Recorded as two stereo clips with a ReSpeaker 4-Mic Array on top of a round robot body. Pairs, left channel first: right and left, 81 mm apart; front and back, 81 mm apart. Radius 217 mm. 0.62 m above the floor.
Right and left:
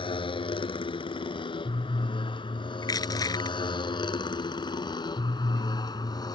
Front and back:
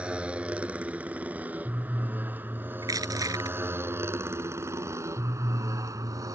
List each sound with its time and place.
0.0 s a motorcycle: 105° right; by 6.3 s 130° right
2.8 s crushing: 135° right